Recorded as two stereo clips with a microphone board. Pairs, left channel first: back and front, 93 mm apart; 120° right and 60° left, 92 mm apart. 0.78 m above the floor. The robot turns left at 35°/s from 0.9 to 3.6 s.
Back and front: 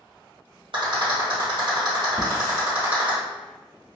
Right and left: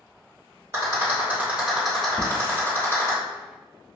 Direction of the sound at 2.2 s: 55° left.